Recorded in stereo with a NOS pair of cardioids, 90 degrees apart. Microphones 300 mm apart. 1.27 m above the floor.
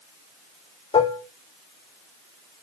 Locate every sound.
0.9 s dishes clattering: 20° left, 2 m